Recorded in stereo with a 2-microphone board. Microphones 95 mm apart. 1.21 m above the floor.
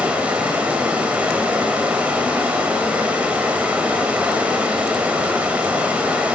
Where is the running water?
15° right (ahead or behind), 3 m.